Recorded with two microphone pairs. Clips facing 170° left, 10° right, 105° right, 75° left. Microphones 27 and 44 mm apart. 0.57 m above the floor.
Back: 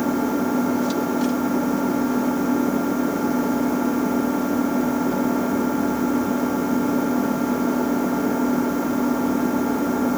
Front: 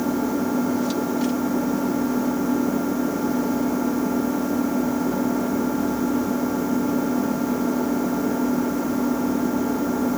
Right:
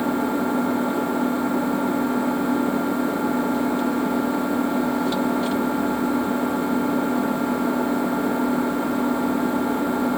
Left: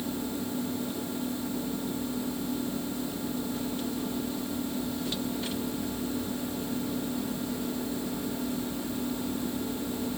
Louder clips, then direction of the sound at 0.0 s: Back 1 dB, right 11 dB; 120° right.